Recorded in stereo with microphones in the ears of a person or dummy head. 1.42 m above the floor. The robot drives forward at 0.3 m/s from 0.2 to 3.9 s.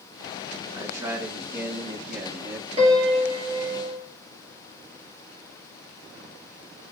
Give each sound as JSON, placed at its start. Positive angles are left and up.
{"t": 0.7, "sound": "a man speaking", "side_deg": -15, "distance_m": 1.2}
{"t": 2.8, "sound": "a piano", "side_deg": -30, "distance_m": 4.0}